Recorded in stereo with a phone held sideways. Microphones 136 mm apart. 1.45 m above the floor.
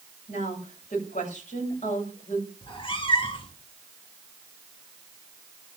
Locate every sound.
0.3 s a woman speaking: 85° left, 8.5 m
2.6 s a cat meowing: 40° left (ahead or behind), 1.6 m